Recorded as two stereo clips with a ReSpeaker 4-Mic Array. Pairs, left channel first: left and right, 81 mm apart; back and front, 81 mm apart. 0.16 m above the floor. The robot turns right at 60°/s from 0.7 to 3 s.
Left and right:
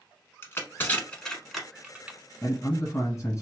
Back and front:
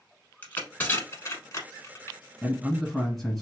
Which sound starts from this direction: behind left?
Crushing, at 0.4 s.